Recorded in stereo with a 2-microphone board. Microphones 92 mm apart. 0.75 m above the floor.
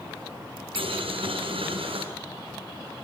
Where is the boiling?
85° right, 7.5 m.